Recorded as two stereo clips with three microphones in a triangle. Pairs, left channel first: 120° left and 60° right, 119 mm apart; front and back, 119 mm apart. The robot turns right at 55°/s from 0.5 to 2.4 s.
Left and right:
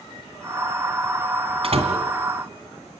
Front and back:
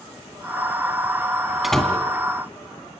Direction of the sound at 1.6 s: 90° right.